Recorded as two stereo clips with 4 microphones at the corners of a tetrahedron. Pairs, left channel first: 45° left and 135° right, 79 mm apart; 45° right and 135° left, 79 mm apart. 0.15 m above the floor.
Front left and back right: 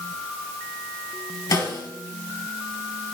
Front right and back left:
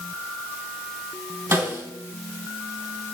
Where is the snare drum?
75° left, 2.5 m.